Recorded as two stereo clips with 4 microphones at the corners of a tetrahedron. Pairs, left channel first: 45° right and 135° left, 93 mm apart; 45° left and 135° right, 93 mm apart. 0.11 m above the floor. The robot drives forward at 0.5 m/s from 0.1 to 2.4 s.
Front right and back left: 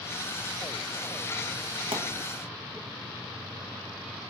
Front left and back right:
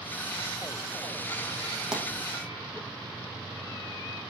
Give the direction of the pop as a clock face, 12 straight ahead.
7 o'clock.